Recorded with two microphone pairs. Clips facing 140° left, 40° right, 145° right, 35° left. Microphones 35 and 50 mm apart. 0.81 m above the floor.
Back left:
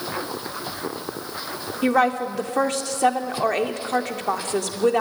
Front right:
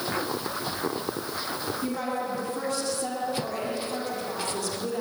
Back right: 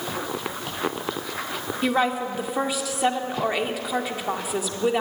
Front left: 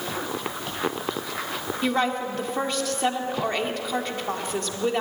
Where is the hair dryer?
I don't hear a hair dryer.